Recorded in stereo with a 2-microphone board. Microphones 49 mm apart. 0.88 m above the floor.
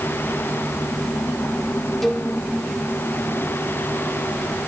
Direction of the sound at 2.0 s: 5° left (ahead or behind).